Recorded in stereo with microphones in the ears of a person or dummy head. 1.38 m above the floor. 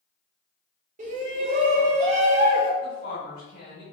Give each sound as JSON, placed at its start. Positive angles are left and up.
{"t": 1.0, "sound": "a shout", "side_deg": -40, "distance_m": 0.7}
{"t": 2.8, "sound": "a woman speaking", "side_deg": 65, "distance_m": 1.6}